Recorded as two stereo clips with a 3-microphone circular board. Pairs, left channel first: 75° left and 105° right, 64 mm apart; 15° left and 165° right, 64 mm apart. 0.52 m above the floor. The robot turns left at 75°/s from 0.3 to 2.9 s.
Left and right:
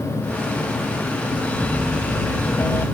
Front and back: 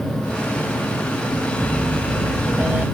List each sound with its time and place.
1.6 s a piano: 150° right; by 2.9 s 115° left